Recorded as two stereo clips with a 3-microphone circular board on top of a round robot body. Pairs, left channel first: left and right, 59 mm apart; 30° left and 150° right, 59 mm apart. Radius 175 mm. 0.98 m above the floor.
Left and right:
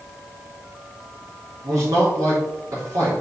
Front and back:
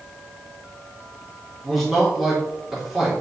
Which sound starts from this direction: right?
A man speaking, at 1.6 s.